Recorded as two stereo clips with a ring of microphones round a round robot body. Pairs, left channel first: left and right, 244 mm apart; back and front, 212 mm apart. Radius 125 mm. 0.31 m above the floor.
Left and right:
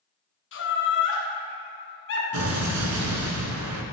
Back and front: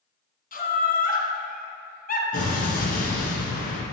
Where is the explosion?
120° right, 1.5 m.